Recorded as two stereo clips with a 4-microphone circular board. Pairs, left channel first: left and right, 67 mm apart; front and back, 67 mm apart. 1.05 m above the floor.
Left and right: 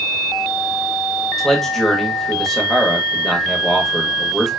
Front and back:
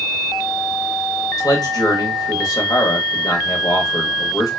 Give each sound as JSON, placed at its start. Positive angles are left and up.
{"t": 1.4, "sound": "a man speaking", "azimuth_deg": 5, "distance_m": 1.0}